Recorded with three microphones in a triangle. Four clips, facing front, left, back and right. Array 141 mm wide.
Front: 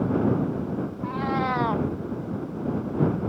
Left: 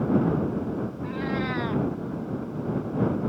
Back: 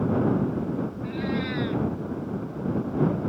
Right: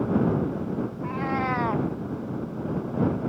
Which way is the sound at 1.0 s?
30° right.